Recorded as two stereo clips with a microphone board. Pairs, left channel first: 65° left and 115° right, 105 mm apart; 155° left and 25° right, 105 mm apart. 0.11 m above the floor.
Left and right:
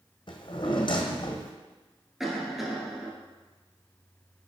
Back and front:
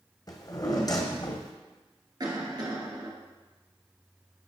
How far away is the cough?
About 1.8 m.